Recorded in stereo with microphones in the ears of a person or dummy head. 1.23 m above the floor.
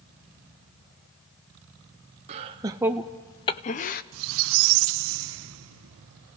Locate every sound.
2.3 s laughter: 35° right (ahead or behind), 0.7 m; by 4.0 s 40° left (ahead or behind), 0.8 m
4.1 s a squeak: 75° right (ahead or behind), 0.6 m